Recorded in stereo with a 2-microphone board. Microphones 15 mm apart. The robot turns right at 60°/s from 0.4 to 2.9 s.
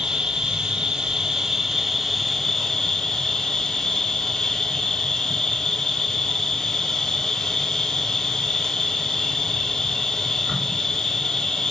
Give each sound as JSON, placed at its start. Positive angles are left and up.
{"t": 0.0, "sound": "an insect", "azimuth_deg": -100, "distance_m": 0.8}